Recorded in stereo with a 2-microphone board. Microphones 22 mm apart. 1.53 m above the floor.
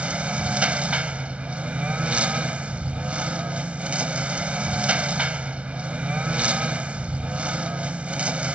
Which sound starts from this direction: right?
A lawn mower, at 0.0 s.